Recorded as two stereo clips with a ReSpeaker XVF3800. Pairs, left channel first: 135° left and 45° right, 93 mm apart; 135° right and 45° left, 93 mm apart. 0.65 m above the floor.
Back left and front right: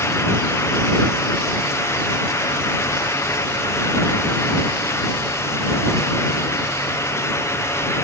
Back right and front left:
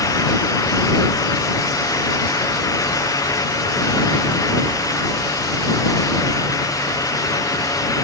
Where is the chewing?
No chewing in this recording.